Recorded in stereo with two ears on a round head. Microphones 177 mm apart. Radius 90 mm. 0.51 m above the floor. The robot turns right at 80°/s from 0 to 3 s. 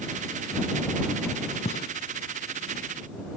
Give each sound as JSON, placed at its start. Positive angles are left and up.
{"t": 1.6, "sound": "a gunshot", "side_deg": 30}